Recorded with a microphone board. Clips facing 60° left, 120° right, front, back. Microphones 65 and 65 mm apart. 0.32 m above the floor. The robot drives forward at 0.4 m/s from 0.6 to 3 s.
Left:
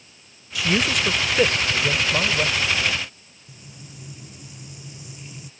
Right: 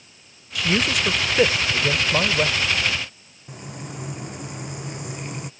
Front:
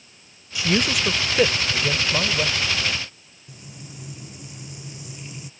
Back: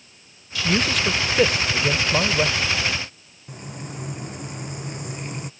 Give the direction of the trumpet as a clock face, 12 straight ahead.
No trumpet in this recording.